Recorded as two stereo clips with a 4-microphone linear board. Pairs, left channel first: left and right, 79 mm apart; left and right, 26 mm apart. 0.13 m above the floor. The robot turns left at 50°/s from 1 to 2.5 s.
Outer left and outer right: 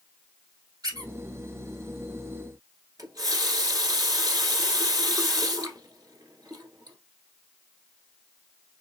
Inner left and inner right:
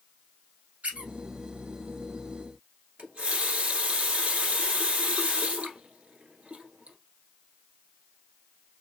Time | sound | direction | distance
0.8 | a squeak | 60° right (ahead or behind) | 1.2 m
3.0 | a running tap | 50° right (ahead or behind) | 1.1 m